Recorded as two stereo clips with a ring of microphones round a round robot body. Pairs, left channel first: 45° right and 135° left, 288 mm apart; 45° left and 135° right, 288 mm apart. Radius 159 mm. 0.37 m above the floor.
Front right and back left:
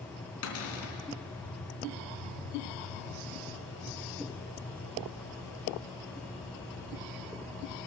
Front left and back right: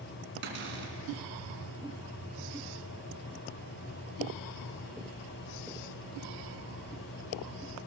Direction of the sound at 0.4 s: 85° right.